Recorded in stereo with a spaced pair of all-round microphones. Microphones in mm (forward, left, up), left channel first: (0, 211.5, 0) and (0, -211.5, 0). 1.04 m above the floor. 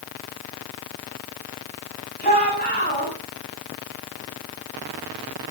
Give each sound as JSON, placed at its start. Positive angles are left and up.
{"t": 2.2, "sound": "a shout", "side_deg": 20, "distance_m": 8.5}